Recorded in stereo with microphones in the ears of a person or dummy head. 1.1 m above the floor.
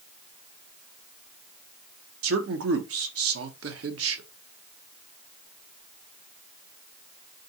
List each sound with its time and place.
2.2 s a man speaking: 70° right (ahead or behind), 1.0 m